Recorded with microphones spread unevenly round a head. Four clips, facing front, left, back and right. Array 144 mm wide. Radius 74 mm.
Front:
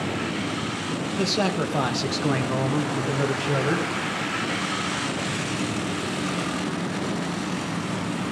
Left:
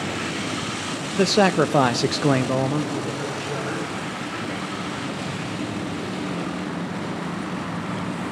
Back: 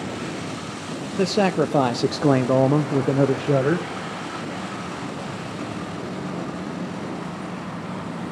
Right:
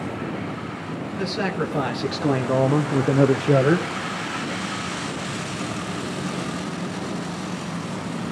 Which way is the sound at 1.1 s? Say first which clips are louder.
Left 8 dB, back 6 dB; 120° left.